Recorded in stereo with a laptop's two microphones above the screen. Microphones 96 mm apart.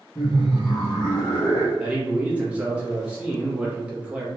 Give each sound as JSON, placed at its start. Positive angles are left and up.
{"t": 0.1, "sound": "laughter", "side_deg": 45, "distance_m": 1.1}
{"t": 1.8, "sound": "a man speaking", "side_deg": -15, "distance_m": 1.0}